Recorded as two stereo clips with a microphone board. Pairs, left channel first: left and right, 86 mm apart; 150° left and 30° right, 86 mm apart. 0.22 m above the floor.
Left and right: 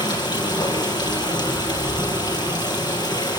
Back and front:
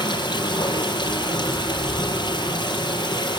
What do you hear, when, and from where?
0.0 s running water: 125° left, 5.5 m